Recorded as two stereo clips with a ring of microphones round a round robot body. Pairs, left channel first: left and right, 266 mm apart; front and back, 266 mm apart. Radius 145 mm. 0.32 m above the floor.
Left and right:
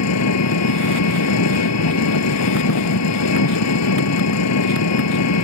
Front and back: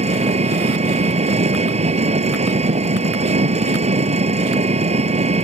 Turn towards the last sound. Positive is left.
turn(degrees=115)